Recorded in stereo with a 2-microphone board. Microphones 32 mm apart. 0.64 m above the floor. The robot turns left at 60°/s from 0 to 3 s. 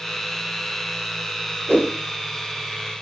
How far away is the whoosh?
About 0.9 m.